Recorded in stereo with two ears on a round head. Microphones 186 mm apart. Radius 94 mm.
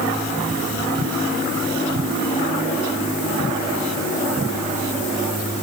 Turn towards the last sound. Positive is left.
No sound to turn to.